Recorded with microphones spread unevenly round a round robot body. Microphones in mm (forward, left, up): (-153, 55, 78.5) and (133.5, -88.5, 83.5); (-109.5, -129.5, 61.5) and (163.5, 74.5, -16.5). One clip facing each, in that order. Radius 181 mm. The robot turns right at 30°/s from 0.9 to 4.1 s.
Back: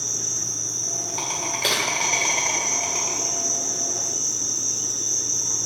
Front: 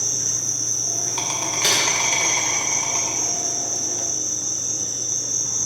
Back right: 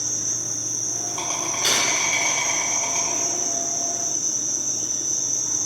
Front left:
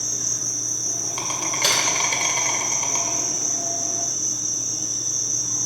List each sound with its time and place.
0.0 s an insect: 5° right, 2 m; by 5.7 s 90° left, 2 m
1.6 s typing on a keyboard: 45° left, 2.5 m; by 1.8 s 55° left, 2.5 m